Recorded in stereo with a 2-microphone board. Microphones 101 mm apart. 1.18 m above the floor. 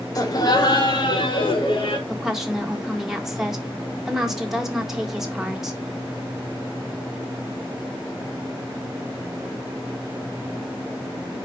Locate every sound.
0.1 s laughter: 35° left (ahead or behind), 1.8 m; by 2.0 s 60° left (ahead or behind), 3 m
2.1 s a woman speaking: 5° right (ahead or behind), 1.5 m